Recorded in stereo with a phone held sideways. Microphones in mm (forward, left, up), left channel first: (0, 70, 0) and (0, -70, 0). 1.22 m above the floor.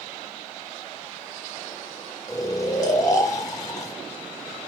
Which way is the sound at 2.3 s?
25° left (ahead or behind).